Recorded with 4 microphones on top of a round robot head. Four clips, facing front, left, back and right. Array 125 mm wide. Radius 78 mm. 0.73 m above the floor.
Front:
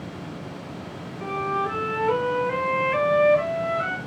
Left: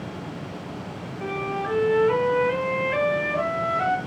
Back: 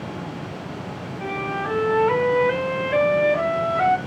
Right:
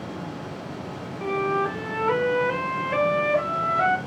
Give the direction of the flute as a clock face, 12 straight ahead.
5 o'clock.